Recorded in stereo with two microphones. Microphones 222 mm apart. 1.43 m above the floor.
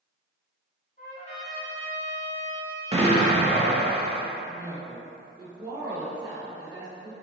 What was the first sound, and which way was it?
A trumpet, 30° left (ahead or behind).